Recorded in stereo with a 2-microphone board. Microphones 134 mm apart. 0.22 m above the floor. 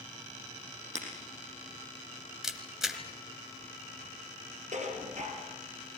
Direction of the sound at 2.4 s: 5° right (ahead or behind).